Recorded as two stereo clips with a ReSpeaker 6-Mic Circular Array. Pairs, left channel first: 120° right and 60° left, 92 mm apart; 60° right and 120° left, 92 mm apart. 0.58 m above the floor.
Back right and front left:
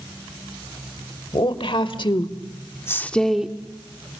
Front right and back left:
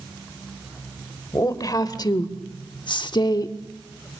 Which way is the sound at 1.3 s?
110° right.